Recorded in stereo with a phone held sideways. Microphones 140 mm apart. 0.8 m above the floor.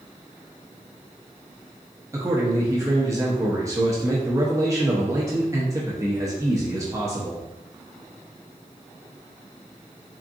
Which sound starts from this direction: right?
A man speaking, at 2.1 s.